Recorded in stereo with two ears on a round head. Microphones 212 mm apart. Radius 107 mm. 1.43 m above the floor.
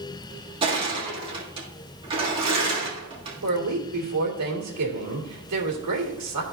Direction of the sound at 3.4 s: 75° right (ahead or behind).